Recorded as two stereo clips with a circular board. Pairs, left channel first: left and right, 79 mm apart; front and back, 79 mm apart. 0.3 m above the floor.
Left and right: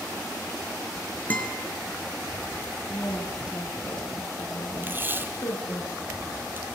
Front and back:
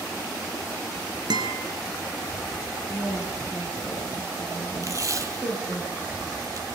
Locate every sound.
1.3 s a guitar: 160° left, 3.5 m
2.9 s a woman speaking: 120° left, 4.5 m
4.8 s tape being pulled: 145° right, 1.9 m